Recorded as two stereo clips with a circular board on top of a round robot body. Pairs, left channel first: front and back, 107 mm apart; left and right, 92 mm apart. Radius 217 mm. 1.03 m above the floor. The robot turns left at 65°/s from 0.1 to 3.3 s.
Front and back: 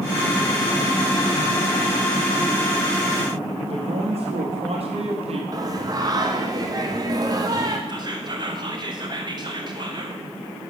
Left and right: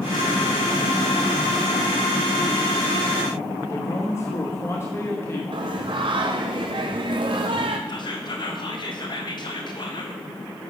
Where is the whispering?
130° left, 1.6 m.